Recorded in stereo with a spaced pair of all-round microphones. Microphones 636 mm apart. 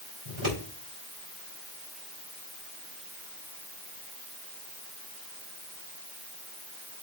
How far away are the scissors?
About 5 m.